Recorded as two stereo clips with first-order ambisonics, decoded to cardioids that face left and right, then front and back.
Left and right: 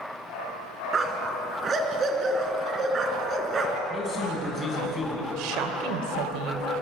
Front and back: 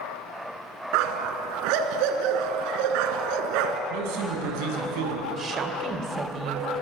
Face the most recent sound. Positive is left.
turn(degrees=-110)